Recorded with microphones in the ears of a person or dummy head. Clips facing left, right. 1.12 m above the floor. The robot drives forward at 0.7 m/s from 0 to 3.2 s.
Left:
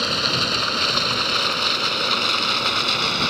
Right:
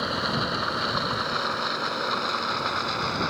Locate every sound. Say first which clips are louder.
0.0 s running water: left 2 dB; 35° left (ahead or behind); by 3.3 s 45° left (ahead or behind)